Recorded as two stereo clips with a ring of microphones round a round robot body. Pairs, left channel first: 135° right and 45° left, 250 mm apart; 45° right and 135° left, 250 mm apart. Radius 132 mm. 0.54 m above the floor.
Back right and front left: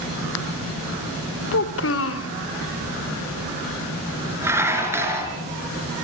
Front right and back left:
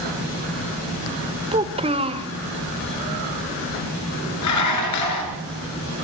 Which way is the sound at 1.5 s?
160° right.